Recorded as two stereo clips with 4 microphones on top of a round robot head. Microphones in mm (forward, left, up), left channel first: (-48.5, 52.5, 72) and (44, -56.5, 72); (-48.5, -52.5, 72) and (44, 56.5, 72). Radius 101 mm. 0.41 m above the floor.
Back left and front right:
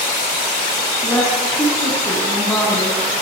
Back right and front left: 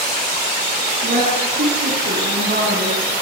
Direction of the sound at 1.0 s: 50° left.